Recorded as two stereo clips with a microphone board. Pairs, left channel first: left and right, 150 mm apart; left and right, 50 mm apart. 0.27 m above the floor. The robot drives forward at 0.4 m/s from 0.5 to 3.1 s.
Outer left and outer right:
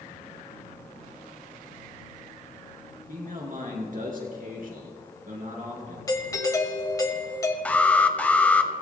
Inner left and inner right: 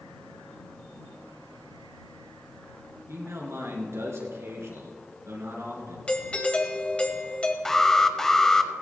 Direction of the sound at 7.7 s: 10° left (ahead or behind).